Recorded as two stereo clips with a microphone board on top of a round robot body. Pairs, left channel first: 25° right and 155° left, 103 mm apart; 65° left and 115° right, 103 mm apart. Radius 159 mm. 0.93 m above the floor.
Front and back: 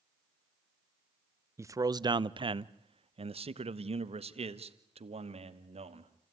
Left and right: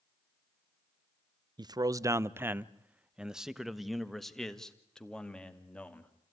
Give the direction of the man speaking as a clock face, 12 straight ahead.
5 o'clock.